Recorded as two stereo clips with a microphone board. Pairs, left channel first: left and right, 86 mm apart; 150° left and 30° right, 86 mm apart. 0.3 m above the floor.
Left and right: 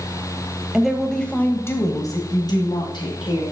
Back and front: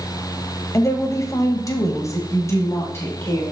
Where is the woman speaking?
170° right, 1.6 m; by 3.4 s 85° left, 2.5 m.